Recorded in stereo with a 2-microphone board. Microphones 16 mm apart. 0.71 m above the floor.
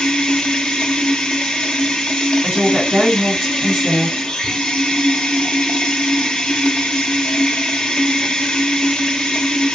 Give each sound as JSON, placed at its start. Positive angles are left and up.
{"t": 0.0, "sound": "running water", "side_deg": 75, "distance_m": 0.8}
{"t": 2.4, "sound": "a woman speaking", "side_deg": -50, "distance_m": 1.9}